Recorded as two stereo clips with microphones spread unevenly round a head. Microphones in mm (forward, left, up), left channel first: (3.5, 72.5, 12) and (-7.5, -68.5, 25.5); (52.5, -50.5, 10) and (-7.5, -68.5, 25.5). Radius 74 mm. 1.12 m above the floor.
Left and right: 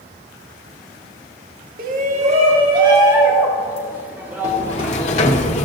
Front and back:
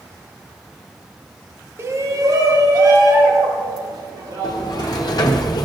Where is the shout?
120° right, 1.3 m; by 5.4 s straight behind, 4 m.